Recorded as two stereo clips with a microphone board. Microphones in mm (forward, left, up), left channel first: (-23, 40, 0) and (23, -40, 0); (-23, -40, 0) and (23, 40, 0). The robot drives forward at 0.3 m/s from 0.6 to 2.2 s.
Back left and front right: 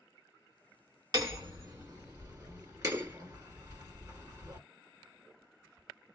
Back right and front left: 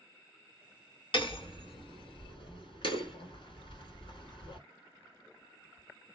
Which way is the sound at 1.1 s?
100° right.